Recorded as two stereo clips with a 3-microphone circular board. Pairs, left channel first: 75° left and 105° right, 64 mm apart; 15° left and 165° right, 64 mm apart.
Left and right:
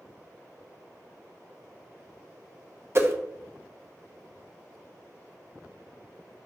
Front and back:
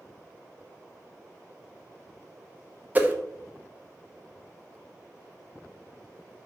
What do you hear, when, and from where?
3.0 s a whoosh: 115° right, 0.8 m